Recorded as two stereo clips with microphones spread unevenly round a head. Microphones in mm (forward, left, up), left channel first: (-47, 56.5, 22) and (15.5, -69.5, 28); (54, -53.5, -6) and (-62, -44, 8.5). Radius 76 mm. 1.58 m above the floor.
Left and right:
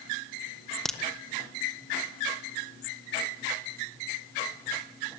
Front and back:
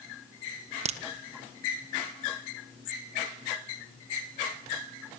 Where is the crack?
155° right, 1.4 m.